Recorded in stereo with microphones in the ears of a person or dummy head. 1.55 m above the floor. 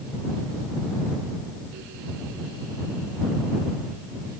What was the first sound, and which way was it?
Only background noise.